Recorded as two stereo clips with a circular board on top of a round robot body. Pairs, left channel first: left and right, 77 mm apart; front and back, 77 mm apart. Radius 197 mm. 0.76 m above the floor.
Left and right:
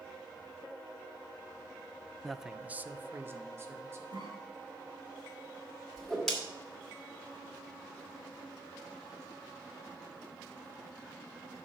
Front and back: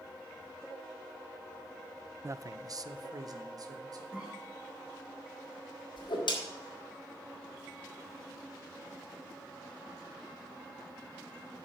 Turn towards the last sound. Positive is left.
turn(degrees=5)